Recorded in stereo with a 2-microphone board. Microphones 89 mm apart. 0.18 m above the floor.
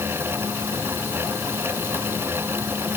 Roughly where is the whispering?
No whispering in this recording.